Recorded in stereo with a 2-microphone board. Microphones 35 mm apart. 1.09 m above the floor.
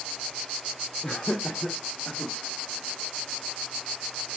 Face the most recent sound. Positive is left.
turn(degrees=80)